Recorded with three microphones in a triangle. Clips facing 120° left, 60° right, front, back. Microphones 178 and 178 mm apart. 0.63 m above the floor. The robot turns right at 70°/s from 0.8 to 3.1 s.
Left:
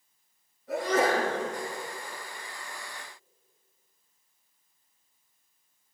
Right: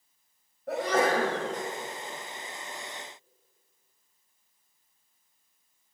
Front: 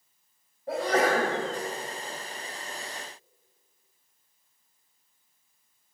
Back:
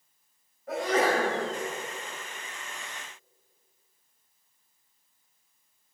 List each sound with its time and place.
0.7 s a sneeze: 55° right, 3.5 m; by 1.4 s 20° right, 3.5 m